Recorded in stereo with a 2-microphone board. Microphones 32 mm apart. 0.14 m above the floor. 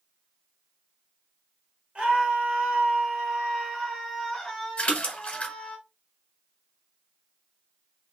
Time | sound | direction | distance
1.9 | a scream | 40° right (ahead or behind) | 2 m
4.8 | a splash | 35° left (ahead or behind) | 1.3 m